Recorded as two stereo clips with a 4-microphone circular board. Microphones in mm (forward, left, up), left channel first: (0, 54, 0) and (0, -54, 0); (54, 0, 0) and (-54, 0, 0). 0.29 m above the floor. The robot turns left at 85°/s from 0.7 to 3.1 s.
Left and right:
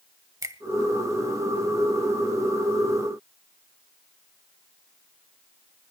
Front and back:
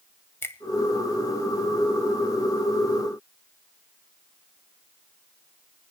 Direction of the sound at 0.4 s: 55° right.